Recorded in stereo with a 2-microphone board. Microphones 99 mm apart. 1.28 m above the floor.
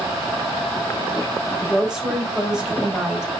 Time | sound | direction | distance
1.6 | a woman speaking | 5° right (ahead or behind) | 3.5 m